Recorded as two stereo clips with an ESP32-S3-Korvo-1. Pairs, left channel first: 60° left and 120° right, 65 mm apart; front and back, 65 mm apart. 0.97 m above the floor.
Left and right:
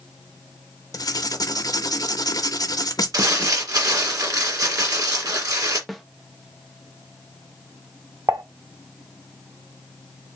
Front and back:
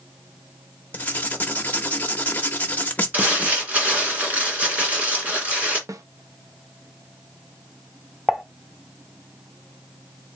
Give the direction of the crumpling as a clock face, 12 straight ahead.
4 o'clock.